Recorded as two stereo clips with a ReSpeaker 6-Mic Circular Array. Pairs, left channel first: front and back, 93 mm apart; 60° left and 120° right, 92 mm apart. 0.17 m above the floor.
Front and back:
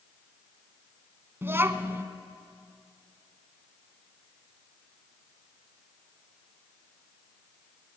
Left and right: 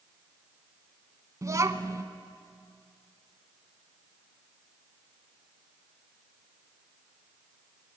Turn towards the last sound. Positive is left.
turn(degrees=-135)